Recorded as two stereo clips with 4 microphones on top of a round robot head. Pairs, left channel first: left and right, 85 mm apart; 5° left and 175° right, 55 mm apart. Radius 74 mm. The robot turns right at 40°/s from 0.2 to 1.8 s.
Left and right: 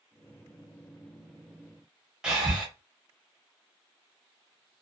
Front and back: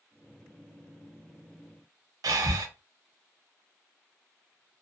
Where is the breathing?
175° right, 0.5 m.